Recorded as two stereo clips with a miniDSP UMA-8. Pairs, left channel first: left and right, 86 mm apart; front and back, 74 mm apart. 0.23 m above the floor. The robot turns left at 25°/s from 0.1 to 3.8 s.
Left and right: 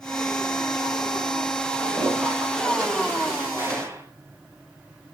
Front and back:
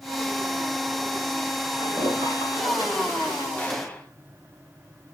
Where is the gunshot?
55° right, 1.8 m; by 4.1 s 60° right, 1.8 m.